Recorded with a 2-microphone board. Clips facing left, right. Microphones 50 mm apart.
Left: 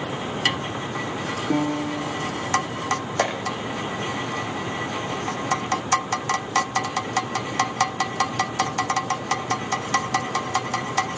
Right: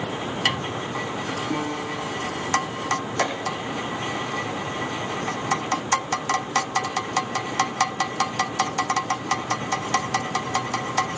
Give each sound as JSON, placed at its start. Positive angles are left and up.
{"t": 1.5, "sound": "a piano", "side_deg": 65, "distance_m": 5.5}
{"t": 3.2, "sound": "a clap", "side_deg": 65, "distance_m": 5.5}